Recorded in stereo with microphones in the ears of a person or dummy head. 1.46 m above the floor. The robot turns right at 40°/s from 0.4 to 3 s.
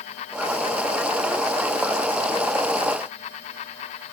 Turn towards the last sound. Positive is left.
No sound to turn to.